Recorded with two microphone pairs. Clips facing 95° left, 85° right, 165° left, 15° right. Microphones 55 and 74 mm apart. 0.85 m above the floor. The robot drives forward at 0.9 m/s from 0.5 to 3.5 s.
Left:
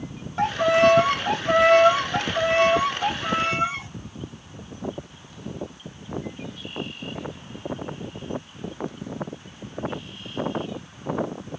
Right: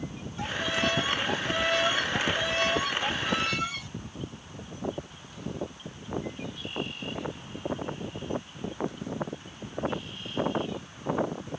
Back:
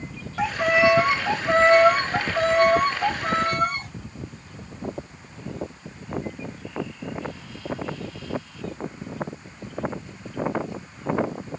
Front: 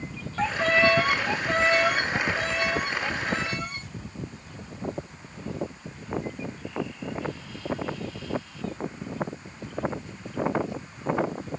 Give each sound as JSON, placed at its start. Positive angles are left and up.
{"t": 0.4, "sound": "a violin", "azimuth_deg": 85}